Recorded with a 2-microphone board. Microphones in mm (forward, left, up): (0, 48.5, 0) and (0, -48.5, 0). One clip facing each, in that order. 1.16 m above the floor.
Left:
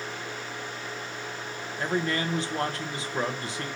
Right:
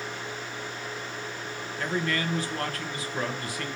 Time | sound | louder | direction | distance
1.8 | a man speaking | left 1 dB | 25° left (ahead or behind) | 1.1 m